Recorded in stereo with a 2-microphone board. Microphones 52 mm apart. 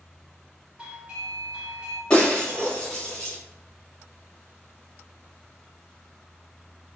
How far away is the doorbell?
About 1.0 m.